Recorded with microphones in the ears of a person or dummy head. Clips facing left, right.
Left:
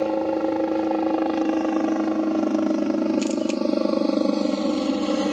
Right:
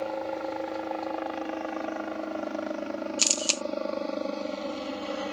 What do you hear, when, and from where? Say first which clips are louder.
0.0 s a helicopter: left 10 dB; 65° left (ahead or behind)
3.2 s a camera shutter: left 12 dB; 65° right (ahead or behind)